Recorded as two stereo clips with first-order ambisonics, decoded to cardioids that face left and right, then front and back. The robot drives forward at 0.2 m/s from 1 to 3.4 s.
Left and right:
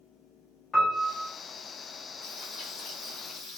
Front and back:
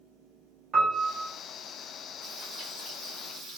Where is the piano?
150° left, 0.8 m; by 1.3 s 155° left, 0.8 m.